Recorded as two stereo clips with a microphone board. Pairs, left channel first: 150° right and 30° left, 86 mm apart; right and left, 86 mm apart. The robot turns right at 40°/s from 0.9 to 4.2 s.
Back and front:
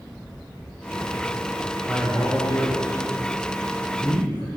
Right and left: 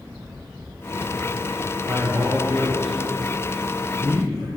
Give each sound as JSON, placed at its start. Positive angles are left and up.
{"t": 1.9, "sound": "a man speaking", "azimuth_deg": 130, "distance_m": 1.0}